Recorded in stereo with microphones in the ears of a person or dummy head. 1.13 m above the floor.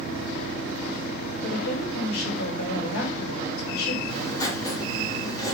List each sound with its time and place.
1.4 s a woman speaking: 80° left, 3.5 m
4.1 s writing: 15° left (ahead or behind), 2 m